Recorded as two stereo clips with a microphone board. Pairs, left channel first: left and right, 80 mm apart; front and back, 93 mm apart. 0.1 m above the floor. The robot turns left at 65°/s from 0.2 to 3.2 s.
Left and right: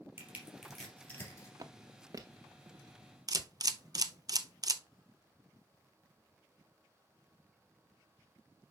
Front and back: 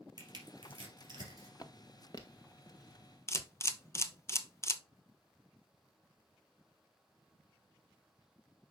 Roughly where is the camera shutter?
Ahead right.